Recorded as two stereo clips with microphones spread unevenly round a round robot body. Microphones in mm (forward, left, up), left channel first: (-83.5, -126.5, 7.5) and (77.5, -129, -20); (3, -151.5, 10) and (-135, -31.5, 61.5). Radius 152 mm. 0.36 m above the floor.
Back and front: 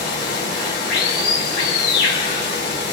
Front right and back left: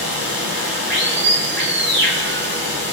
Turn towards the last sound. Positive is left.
turn(degrees=145)